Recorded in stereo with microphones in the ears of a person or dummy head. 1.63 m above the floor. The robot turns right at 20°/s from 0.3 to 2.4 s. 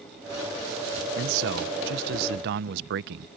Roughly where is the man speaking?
Right.